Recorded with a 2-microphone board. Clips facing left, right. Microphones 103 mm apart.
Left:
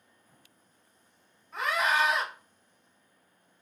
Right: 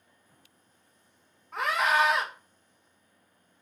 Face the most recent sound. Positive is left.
turn(degrees=-70)  # may be behind; listen again after turning